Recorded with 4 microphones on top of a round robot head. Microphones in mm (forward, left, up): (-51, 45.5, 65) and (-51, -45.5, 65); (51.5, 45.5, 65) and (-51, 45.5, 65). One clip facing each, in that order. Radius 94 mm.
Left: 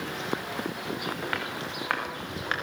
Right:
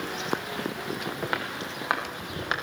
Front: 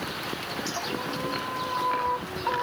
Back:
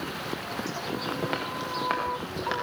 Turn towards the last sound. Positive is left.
turn(degrees=-160)